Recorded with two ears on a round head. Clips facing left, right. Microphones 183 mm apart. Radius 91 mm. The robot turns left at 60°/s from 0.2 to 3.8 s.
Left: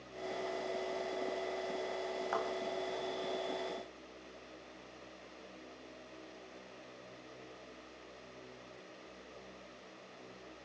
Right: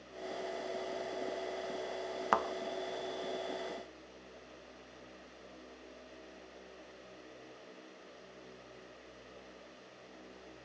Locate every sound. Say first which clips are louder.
2.3 s a thud: right 5 dB; 80° right, 1.5 m